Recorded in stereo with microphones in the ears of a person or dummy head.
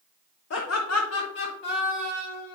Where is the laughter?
65° left (ahead or behind), 0.8 m; by 2.5 s 50° left (ahead or behind), 2.5 m.